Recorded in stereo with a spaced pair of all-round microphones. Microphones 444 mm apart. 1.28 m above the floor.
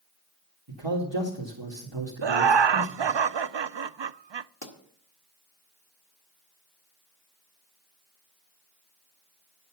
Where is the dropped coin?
I don't hear a dropped coin.